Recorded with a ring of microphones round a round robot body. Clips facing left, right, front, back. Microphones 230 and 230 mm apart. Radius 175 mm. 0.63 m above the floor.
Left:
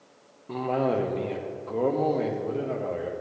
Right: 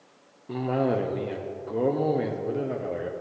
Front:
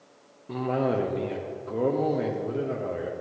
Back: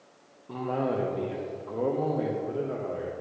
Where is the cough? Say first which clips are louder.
Right 1 dB, front 3 dB; 30° right, 0.6 m.